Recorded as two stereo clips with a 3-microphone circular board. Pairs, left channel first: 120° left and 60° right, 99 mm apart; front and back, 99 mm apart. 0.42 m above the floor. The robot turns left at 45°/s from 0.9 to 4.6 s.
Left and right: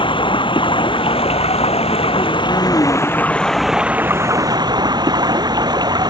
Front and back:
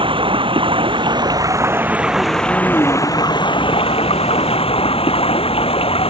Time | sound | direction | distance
0.0 | running water | 150° left | ?